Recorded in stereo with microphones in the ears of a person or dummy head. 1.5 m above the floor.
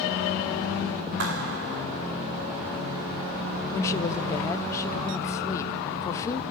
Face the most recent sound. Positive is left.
turn(degrees=15)  # may be behind; listen again after turning